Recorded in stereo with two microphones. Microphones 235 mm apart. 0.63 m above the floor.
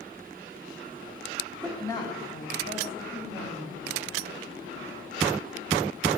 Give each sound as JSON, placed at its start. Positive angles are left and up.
{"t": 1.6, "sound": "a woman speaking", "side_deg": 0, "distance_m": 1.5}